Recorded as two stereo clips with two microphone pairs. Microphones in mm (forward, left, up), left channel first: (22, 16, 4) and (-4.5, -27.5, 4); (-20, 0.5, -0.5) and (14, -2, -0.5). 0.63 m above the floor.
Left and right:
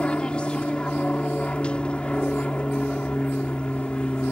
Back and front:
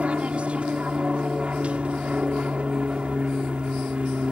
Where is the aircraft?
5° left.